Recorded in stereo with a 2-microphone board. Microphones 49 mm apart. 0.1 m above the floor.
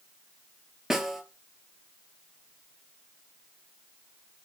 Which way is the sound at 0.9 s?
5° right (ahead or behind).